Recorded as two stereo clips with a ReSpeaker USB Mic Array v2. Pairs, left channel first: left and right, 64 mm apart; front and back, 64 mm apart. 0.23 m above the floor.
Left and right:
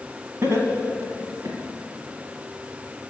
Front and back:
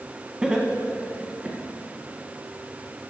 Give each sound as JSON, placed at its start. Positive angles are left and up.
{"t": 0.4, "sound": "laughter", "azimuth_deg": -110, "distance_m": 1.3}